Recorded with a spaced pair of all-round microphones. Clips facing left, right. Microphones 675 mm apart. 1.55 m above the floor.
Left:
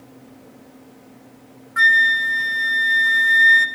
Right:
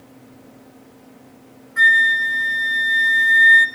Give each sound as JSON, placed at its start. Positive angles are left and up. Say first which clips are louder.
{"t": 1.8, "sound": "a flute", "louder": "right 1 dB", "side_deg": 40, "distance_m": 1.3}